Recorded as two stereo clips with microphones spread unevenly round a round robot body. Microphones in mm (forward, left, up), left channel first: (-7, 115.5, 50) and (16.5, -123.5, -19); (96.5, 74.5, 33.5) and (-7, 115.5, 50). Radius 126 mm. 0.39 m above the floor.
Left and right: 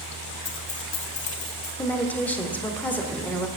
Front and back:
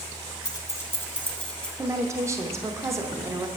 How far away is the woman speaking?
About 0.8 m.